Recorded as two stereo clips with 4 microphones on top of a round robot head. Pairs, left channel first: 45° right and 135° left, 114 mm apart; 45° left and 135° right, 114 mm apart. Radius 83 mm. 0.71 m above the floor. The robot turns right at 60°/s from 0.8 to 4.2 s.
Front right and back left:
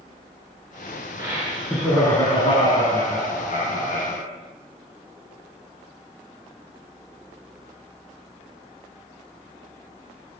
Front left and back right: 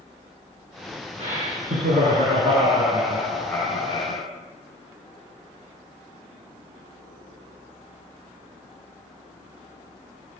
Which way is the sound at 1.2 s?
170° right.